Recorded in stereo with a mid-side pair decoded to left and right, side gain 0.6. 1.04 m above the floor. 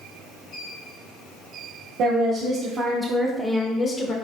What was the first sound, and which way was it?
A woman speaking, 60° right.